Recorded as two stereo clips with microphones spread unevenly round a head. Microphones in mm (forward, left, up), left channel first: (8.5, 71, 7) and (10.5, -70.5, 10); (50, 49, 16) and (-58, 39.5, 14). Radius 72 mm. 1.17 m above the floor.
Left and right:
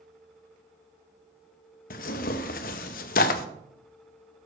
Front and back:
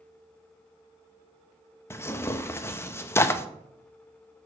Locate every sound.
1.9 s tearing paper: 70° left, 0.7 m